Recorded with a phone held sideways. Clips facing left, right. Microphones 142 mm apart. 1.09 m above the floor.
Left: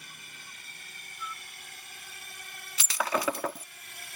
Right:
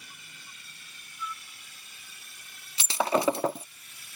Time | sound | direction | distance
0.0 | a drone | 55° left (ahead or behind) | ?
1.2 | a flute | 30° left (ahead or behind) | ?
2.8 | breaking glass | 25° right (ahead or behind) | ?